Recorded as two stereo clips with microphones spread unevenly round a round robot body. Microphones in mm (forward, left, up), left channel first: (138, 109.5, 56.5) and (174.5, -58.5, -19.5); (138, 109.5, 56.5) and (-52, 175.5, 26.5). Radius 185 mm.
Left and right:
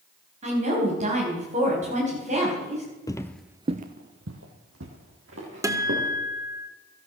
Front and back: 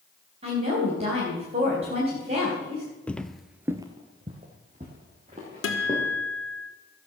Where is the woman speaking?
130° right, 3.5 m.